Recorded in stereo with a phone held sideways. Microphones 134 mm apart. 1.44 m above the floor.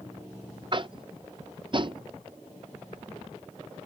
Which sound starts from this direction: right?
Tapping, at 0.7 s.